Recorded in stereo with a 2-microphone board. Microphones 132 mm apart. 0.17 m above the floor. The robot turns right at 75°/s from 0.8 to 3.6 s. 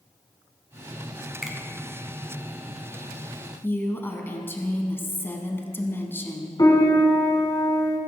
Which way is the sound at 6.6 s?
30° left (ahead or behind).